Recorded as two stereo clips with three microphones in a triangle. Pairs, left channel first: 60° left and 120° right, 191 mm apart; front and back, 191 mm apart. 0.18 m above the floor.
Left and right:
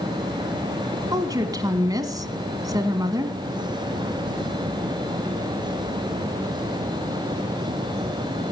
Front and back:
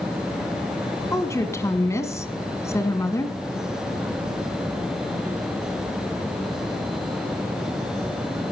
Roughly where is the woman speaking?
Ahead right.